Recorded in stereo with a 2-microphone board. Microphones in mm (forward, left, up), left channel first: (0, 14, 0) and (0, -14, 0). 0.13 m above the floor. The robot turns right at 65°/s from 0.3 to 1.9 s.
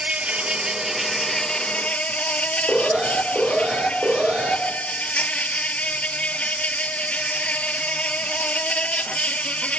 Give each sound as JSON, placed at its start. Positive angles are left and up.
{"t": 0.0, "sound": "an insect", "azimuth_deg": -45, "distance_m": 0.7}
{"t": 2.7, "sound": "an alarm", "side_deg": -55, "distance_m": 5.0}